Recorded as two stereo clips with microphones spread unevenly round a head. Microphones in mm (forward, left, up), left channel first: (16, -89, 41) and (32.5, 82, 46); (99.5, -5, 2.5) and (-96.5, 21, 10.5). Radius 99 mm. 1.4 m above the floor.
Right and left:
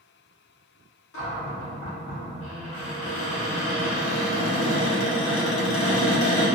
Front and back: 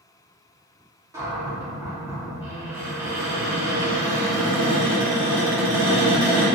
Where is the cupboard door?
110° right, 0.7 m.